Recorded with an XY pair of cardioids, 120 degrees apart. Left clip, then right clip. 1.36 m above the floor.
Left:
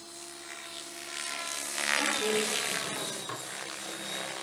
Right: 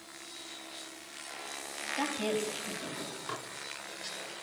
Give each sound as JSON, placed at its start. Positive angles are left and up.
{"t": 2.0, "sound": "a woman speaking", "azimuth_deg": -60, "distance_m": 8.0}
{"t": 3.3, "sound": "dishes clattering", "azimuth_deg": -5, "distance_m": 1.8}